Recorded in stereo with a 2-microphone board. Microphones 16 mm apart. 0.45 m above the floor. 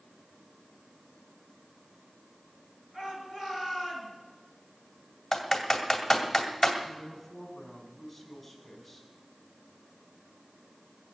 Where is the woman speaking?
Centre (ahead or behind), 3 m.